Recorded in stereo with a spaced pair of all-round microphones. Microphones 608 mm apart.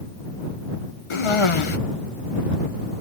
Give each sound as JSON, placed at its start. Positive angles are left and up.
{"t": 1.1, "sound": "a cough", "side_deg": 60}